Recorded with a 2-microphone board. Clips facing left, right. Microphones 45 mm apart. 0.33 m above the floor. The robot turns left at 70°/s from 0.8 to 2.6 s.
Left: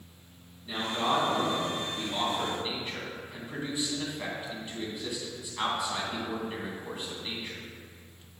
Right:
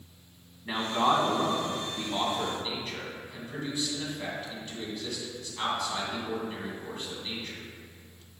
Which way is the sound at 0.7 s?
55° right (ahead or behind).